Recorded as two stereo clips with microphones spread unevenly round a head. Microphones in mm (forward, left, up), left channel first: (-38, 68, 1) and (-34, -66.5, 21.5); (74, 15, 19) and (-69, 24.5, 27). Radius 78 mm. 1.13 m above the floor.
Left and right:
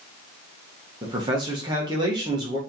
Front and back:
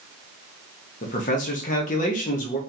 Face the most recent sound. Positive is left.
turn(degrees=-25)